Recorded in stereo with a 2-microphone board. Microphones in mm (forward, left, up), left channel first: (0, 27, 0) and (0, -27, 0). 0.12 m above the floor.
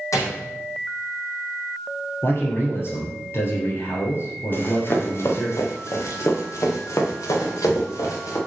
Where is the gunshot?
80° left, 3.5 m.